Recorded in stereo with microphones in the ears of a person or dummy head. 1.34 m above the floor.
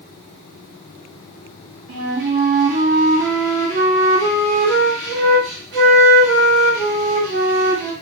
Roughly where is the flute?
Right.